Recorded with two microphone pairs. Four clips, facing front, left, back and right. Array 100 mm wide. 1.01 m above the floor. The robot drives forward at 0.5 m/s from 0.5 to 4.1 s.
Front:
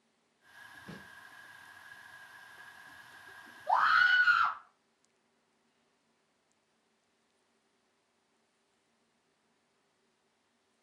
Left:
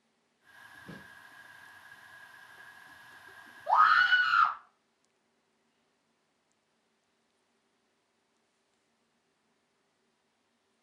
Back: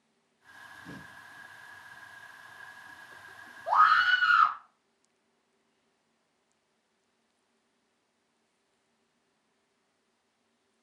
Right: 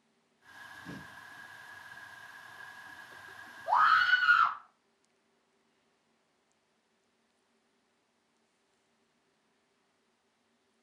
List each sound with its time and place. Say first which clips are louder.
0.9 s a snare drum: right 3 dB, back 3 dB; 5° left, 1.7 m
3.7 s a scream: left 2 dB, back 4 dB; 170° left, 1.7 m